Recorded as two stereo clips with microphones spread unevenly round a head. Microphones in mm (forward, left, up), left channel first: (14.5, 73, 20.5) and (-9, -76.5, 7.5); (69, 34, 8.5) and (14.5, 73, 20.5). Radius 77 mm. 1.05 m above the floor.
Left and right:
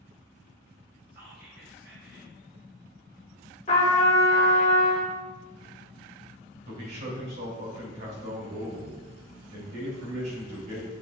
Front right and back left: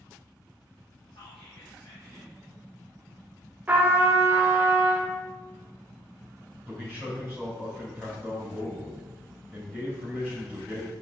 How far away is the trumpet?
About 0.8 m.